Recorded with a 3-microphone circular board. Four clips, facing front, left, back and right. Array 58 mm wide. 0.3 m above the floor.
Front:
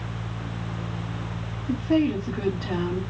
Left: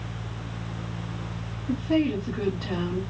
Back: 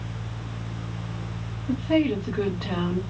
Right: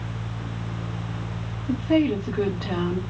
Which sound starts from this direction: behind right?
A woman speaking, at 1.7 s.